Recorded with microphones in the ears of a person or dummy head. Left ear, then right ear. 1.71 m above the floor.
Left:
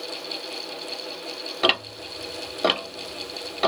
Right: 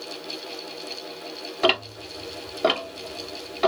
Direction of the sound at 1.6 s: 10° left (ahead or behind).